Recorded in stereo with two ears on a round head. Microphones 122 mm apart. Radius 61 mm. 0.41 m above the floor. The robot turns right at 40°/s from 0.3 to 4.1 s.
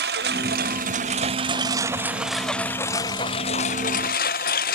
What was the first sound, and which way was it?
A lawn mower, 85° right.